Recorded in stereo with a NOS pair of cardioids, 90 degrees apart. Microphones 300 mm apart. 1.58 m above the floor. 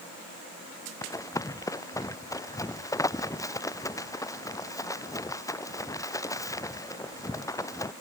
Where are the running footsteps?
10° left.